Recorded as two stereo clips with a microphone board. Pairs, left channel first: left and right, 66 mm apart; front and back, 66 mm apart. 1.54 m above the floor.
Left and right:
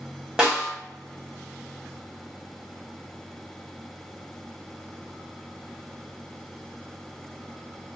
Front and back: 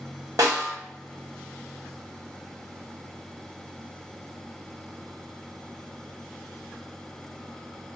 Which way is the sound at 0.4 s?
165° right.